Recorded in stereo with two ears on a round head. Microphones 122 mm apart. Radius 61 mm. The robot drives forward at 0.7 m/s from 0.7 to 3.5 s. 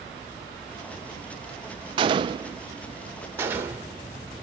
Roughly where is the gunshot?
Right.